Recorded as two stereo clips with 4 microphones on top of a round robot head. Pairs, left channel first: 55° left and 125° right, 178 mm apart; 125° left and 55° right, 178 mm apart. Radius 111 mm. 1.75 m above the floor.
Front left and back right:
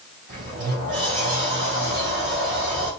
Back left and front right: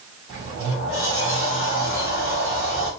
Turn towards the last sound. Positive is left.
turn(degrees=-110)